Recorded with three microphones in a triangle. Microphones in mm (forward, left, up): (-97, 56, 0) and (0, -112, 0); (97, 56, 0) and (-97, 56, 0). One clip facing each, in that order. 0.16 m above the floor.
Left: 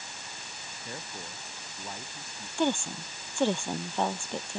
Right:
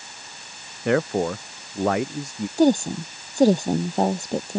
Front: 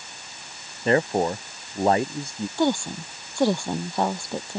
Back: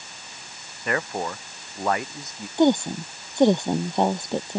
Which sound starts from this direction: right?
A woman speaking, at 2.6 s.